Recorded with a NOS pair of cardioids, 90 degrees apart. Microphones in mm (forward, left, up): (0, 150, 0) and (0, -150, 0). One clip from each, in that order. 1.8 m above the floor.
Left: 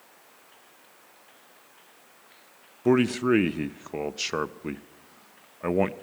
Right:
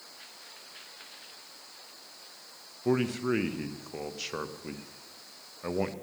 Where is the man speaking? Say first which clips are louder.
Left 6 dB; 40° left, 0.8 m.